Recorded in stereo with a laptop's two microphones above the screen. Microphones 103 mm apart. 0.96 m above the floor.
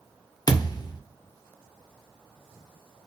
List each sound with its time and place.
0.5 s a thud: 40° left (ahead or behind), 0.5 m